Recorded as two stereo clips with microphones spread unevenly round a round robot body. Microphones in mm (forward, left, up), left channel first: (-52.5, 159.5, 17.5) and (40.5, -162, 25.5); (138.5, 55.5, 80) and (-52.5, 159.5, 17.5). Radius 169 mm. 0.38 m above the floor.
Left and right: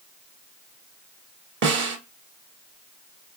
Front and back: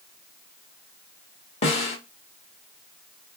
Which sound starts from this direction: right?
A snare drum, at 1.6 s.